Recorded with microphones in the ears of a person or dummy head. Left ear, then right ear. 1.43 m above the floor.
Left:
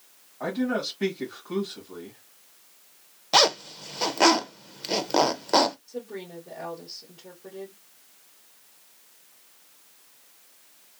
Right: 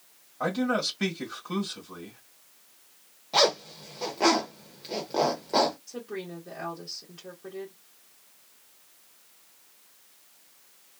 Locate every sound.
0.4 s a man speaking: 85° right, 1.7 m
3.3 s a zipper: 55° left (ahead or behind), 0.6 m
5.9 s a woman speaking: 75° right (ahead or behind), 1.6 m